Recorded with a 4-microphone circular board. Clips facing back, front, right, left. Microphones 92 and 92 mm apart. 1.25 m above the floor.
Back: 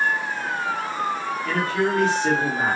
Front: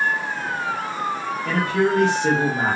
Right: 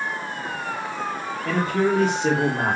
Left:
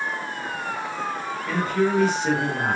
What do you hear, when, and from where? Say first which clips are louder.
1.4 s a man speaking: front 3 dB, right 1 dB; 70° right, 1.4 m